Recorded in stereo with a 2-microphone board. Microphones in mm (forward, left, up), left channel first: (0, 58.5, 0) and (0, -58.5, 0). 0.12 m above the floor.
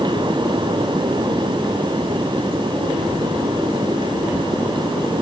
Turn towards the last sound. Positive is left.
No sound to turn to.